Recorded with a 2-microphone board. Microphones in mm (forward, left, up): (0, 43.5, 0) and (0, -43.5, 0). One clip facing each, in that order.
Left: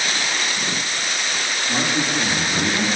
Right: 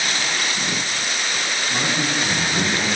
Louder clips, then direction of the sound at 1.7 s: Left 2 dB; 35° left (ahead or behind).